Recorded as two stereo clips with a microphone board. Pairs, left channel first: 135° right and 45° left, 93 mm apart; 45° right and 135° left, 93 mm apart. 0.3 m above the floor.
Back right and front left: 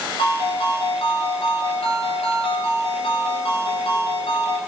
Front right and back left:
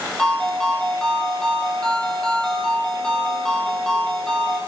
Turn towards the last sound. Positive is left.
turn(degrees=-130)